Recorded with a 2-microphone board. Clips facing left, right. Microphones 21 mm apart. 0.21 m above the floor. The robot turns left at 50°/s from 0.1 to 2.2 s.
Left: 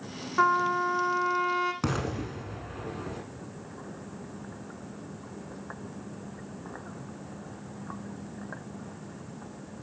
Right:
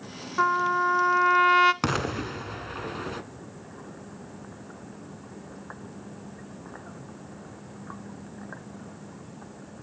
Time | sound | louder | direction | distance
0.4 | a trumpet | right 1 dB | 5° left | 0.5 m
1.8 | an explosion | right 4 dB | 35° right (ahead or behind) | 1.0 m